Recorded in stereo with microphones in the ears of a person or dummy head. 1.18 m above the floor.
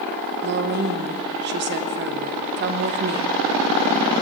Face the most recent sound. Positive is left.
turn(degrees=-55)  # may be behind; listen again after turning